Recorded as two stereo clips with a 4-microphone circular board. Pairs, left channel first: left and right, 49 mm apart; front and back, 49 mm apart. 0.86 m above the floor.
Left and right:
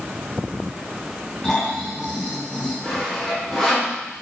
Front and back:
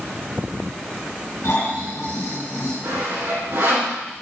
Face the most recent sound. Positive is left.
turn(degrees=170)